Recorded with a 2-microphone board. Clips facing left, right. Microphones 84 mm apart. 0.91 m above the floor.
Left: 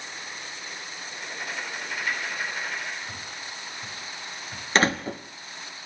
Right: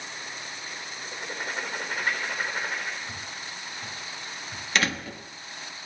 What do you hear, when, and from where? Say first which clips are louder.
1.0 s writing: right 2 dB; 40° right (ahead or behind), 4 m
3.1 s footsteps: even; 5° right (ahead or behind), 7 m; by 4.7 s 10° right (ahead or behind), 8 m
4.8 s a door slam: left 5 dB; 35° left (ahead or behind), 1.0 m